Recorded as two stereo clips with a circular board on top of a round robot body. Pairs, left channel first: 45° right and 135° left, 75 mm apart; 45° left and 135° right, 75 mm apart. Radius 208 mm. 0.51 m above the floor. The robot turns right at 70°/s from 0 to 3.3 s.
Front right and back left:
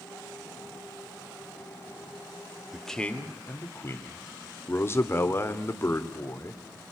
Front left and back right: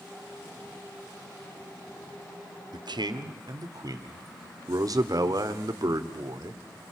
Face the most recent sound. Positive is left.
turn(degrees=-100)